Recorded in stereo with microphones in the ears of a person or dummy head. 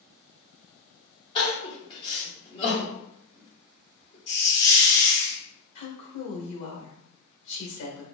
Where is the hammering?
I don't hear hammering.